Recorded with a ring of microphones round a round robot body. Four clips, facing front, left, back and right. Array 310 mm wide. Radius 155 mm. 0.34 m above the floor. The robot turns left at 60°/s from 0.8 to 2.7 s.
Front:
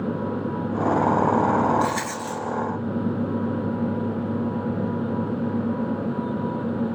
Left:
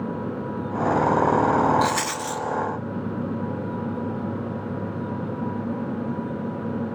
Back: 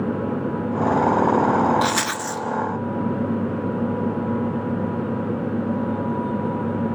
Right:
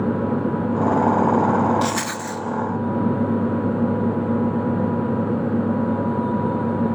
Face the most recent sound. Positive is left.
turn(degrees=135)